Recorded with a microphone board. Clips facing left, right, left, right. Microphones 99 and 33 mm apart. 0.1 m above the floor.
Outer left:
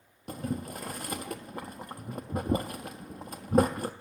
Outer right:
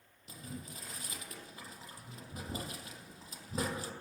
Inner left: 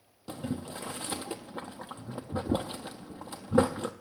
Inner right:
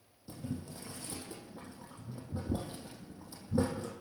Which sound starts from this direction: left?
Boiling, at 0.3 s.